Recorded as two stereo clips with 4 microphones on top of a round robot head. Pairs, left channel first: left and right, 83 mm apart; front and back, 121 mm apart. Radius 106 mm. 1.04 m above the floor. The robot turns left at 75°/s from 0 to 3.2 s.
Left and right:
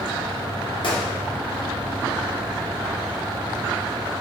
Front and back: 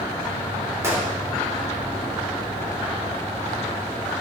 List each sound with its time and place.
0.8 s a gunshot: 110° left, 2.5 m; by 1.1 s 90° left, 2.5 m